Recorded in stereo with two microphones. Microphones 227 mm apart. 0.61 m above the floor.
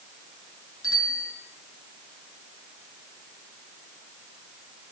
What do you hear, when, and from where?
0.8 s a bicycle bell: 70° left (ahead or behind), 6.5 m